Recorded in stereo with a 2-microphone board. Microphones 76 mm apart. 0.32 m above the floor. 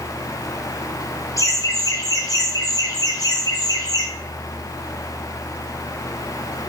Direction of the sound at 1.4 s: 45° left (ahead or behind).